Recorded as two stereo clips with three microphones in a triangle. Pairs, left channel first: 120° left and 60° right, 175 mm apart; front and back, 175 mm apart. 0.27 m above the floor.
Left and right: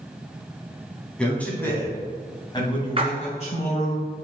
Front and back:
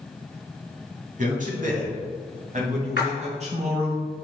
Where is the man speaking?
155° right, 2.5 m; by 4.0 s 140° left, 2.5 m.